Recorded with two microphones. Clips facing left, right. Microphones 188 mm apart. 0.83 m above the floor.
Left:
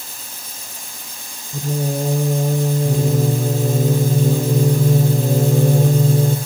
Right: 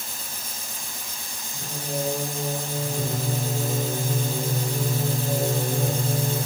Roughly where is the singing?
Left.